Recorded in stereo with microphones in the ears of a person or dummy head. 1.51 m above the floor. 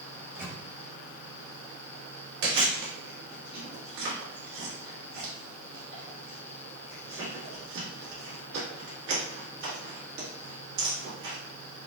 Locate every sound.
0.1 s a microwave: 80° right, 1.9 m
2.4 s chewing: 65° right (ahead or behind), 1.6 m